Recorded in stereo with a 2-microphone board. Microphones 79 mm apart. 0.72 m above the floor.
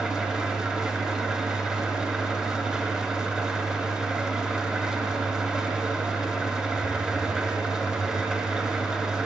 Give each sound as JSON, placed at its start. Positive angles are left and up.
{"t": 0.0, "sound": "an engine running", "side_deg": -5, "distance_m": 2.0}